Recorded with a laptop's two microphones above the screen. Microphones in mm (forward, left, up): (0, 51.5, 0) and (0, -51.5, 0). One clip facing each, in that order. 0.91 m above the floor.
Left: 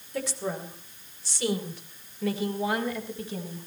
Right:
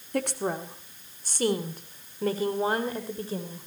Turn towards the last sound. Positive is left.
turn(degrees=-35)  # may be behind; listen again after turning